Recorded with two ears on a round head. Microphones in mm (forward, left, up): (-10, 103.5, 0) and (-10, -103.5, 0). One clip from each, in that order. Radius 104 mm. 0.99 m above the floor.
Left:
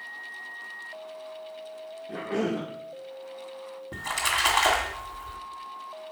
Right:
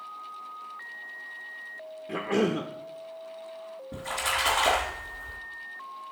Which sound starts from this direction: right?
A cough, at 2.1 s.